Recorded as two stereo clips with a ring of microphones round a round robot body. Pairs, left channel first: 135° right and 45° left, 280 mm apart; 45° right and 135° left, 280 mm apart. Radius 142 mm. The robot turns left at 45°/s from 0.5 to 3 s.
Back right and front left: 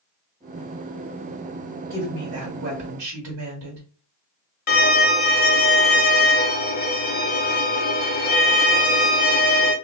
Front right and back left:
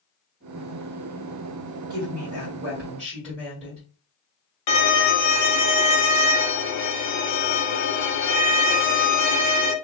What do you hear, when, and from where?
1.9 s a woman speaking: 95° left, 1.7 m; by 3.8 s 45° left, 1.7 m
4.7 s a violin: 75° right, 0.8 m